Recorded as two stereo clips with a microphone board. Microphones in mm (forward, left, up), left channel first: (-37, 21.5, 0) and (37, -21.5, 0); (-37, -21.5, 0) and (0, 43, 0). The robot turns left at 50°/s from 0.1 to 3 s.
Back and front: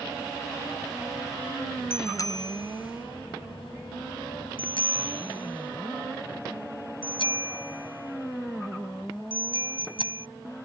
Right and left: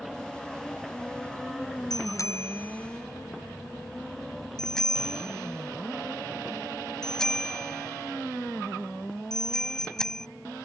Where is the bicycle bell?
145° right; by 10.3 s 160° left.